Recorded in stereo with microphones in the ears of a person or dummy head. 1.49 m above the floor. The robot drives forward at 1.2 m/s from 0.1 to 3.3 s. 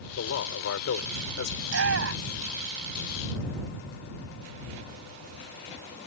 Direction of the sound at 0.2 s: 85° left.